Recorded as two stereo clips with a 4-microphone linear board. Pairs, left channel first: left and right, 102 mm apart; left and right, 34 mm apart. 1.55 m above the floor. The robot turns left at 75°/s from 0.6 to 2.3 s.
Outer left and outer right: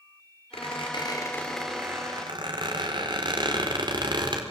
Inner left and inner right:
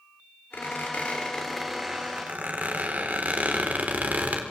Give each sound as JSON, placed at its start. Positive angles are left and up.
{"t": 0.5, "sound": "a squeak", "side_deg": 75, "distance_m": 4.0}